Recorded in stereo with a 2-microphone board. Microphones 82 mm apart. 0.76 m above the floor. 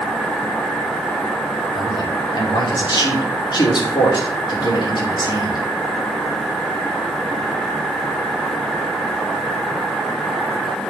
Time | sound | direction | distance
1.7 | a man speaking | 65° left (ahead or behind) | 2.5 m